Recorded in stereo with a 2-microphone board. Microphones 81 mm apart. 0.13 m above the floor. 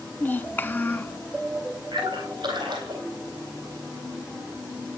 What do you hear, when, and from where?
0.2 s a child speaking: 25° left (ahead or behind), 0.8 m
1.9 s a splash: 60° right (ahead or behind), 4 m